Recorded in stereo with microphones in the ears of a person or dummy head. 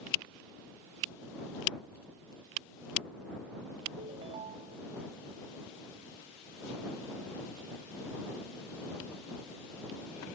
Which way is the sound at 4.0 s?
20° right (ahead or behind).